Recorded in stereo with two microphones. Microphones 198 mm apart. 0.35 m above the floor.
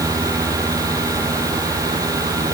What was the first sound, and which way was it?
Only background noise.